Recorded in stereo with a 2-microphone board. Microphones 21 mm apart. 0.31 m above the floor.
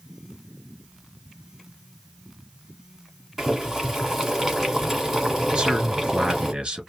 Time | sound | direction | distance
3.4 | boiling | 10° right (ahead or behind) | 2 m
5.5 | a man speaking | 45° right (ahead or behind) | 1.9 m